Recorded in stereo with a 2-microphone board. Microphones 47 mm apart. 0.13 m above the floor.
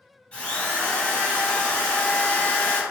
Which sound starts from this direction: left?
A drill, at 0.3 s.